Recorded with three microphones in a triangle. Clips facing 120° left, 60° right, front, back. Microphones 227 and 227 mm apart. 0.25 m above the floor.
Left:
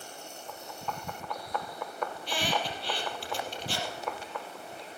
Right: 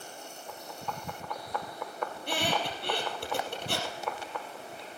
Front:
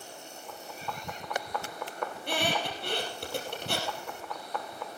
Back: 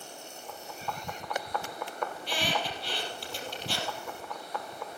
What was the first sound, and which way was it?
A squeak, 30° right.